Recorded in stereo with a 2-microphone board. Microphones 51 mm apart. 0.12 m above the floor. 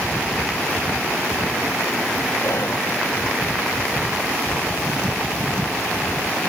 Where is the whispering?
65° left (ahead or behind).